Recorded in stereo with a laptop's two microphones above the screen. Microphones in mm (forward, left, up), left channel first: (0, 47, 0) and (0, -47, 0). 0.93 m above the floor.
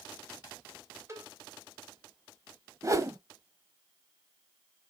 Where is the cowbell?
30° right (ahead or behind), 3.5 m.